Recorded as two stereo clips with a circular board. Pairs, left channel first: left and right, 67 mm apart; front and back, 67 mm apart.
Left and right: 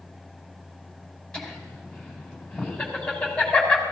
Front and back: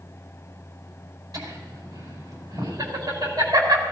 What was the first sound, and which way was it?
Laughter, 170° left.